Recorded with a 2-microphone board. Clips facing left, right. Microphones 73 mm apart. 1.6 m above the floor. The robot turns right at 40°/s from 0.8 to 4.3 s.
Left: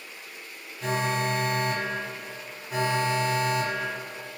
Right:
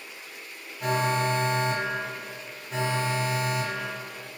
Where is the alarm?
65° right, 1.5 m; by 4.4 s 75° left, 1.5 m.